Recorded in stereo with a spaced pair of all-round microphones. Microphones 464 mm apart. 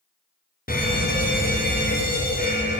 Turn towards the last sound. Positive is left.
turn(degrees=20)  # may be behind; listen again after turning